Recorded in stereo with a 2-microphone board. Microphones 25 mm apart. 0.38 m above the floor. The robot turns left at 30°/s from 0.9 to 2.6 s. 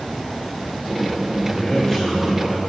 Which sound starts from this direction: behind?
A man speaking, at 1.4 s.